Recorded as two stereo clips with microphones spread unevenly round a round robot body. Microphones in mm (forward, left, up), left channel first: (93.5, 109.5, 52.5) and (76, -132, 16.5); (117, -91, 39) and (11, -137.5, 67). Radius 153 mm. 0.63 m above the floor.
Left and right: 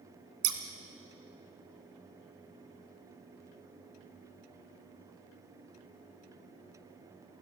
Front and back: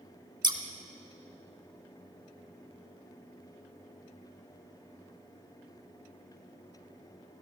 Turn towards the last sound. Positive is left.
turn(degrees=-110)